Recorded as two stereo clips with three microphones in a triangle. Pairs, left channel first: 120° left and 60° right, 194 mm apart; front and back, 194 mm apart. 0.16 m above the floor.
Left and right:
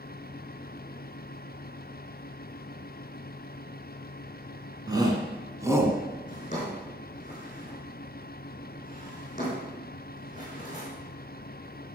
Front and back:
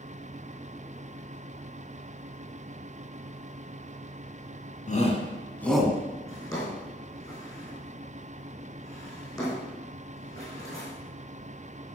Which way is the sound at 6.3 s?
70° left.